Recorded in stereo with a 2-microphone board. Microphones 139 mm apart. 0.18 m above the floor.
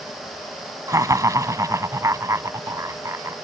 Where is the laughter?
25° right (ahead or behind).